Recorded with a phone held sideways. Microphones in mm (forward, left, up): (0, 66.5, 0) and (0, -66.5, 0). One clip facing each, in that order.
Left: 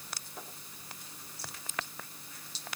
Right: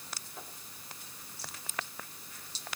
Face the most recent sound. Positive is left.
No sound to turn to.